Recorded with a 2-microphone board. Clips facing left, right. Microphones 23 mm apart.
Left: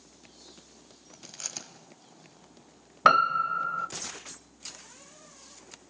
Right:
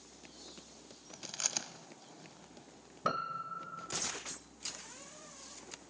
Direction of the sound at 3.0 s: 55° left (ahead or behind).